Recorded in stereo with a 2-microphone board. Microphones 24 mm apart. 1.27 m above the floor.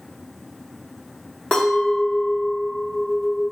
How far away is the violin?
No violin in this recording.